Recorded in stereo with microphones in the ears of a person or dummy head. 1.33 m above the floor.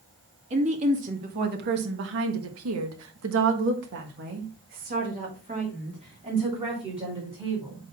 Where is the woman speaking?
35° right (ahead or behind), 2.0 m; by 7.8 s 25° right (ahead or behind), 3.5 m.